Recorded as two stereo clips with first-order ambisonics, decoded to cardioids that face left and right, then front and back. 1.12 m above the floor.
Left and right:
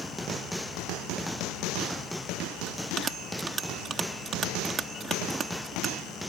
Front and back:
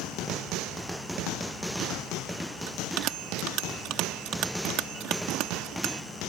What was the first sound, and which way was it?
A bell, 150° right.